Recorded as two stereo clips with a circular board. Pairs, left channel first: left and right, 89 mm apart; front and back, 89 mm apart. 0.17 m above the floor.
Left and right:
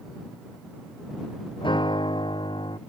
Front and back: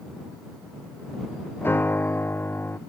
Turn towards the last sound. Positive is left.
turn(degrees=65)